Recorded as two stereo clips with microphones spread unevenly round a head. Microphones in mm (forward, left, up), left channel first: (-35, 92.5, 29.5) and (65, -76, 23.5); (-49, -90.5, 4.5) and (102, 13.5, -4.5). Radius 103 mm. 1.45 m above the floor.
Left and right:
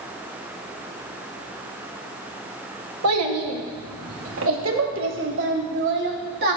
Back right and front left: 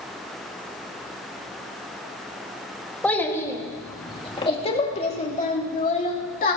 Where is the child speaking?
65° right, 1.9 m; by 6.6 s 105° right, 3 m.